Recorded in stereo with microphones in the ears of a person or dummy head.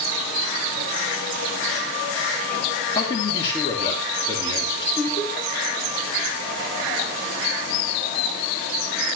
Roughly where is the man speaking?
Left.